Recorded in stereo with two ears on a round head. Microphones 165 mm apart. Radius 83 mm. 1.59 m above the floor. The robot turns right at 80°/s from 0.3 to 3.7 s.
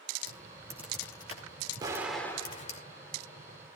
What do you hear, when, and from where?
0.3 s typing on a keyboard: 50° right (ahead or behind), 2.5 m; by 2.8 s 30° left (ahead or behind), 2.5 m
1.8 s an explosion: 25° right (ahead or behind), 2 m; by 3.6 s 50° left (ahead or behind), 2 m